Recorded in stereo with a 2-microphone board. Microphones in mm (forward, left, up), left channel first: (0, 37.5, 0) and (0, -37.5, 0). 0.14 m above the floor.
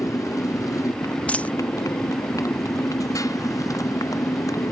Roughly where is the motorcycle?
Left.